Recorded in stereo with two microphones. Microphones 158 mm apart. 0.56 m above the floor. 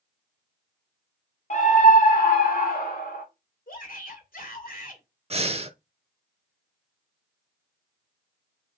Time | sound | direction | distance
1.5 | a scream | 45° left (ahead or behind) | 1.0 m
3.7 | a shout | 60° left (ahead or behind) | 1.9 m
5.3 | breathing | 40° right (ahead or behind) | 0.6 m